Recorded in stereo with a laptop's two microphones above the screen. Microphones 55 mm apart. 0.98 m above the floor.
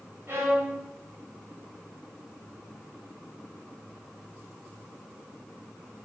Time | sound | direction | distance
0.3 | a violin | 40° right (ahead or behind) | 0.6 m